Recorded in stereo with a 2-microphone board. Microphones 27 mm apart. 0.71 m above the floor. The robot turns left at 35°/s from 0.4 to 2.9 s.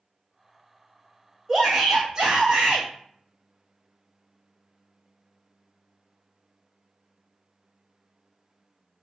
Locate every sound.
1.5 s a shout: 20° right, 0.9 m; by 2.9 s 70° right, 0.9 m